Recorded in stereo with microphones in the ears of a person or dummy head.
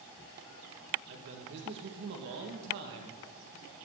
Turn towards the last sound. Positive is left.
turn(degrees=-60)  # may be behind; listen again after turning